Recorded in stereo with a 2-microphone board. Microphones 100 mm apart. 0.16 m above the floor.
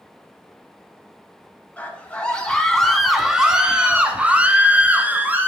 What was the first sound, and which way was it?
A scream, 15° left (ahead or behind).